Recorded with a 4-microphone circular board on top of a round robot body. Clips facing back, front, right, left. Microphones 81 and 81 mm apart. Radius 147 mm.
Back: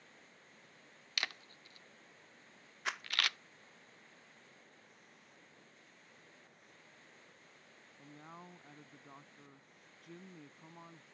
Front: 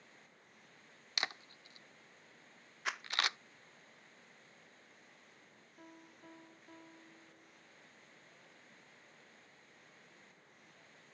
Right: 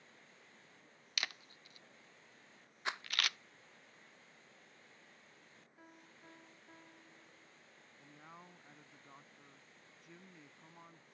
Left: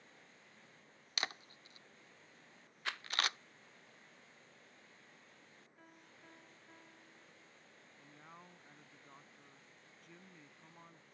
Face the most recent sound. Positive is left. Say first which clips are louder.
# back 9 dB, right 1 dB
turn(degrees=-175)